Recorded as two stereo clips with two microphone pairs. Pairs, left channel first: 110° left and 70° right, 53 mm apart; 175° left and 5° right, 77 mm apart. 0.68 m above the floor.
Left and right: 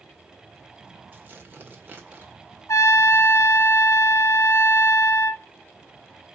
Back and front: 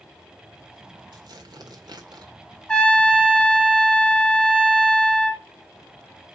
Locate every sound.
1.1 s tearing paper: 15° right, 1.6 m
2.7 s a trumpet: 100° left, 1.2 m